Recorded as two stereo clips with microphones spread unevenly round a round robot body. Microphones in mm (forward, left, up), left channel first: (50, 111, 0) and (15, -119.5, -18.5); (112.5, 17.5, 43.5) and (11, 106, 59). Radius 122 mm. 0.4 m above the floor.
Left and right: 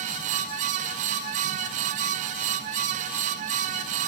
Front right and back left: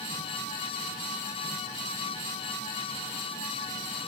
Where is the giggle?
I don't hear a giggle.